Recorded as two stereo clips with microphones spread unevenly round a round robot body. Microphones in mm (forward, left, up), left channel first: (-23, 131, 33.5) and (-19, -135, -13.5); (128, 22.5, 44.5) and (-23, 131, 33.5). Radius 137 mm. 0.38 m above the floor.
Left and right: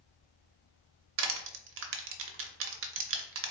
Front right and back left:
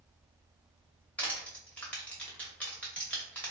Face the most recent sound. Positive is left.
turn(degrees=-120)